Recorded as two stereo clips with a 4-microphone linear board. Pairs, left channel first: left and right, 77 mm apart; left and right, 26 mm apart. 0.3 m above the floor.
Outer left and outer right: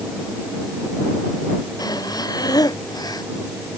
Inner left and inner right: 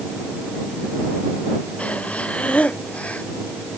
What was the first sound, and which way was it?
Breathing, 60° left (ahead or behind).